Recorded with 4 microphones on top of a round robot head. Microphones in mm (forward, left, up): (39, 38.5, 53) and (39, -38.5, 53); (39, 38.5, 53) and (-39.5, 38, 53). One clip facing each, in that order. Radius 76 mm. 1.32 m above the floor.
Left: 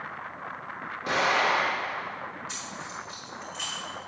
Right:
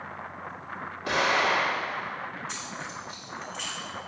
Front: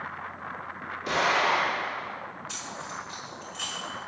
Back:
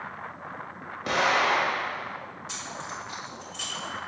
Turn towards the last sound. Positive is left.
turn(degrees=175)